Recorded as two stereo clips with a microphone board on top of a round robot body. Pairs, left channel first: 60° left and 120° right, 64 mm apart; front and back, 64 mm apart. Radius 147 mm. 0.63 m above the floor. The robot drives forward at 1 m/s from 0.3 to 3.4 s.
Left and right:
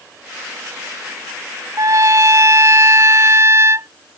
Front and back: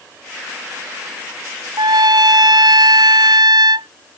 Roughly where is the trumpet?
Behind.